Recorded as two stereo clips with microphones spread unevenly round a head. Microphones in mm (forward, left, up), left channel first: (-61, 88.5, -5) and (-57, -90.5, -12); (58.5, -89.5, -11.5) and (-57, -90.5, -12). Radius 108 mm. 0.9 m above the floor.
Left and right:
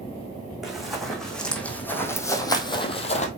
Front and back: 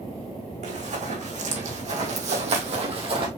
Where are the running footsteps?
Straight behind, 3.5 m; by 3.3 s 135° left, 1.6 m.